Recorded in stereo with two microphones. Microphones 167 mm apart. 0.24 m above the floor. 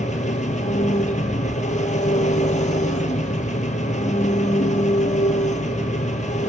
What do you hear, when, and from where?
0.0 s an engine running: 45° left (ahead or behind), 1.7 m